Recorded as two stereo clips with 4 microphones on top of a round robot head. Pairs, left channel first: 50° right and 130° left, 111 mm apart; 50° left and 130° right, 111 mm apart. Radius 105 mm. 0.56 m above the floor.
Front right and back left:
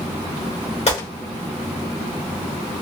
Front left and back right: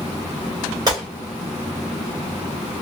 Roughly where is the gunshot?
Right.